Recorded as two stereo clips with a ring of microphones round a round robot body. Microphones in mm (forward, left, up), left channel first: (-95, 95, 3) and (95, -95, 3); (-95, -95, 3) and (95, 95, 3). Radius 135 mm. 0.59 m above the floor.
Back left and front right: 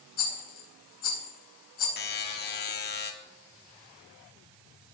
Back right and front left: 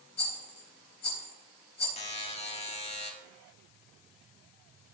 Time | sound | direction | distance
0.2 | a rattle | 170° left | 4 m
2.0 | a buzzer | 165° left | 1.5 m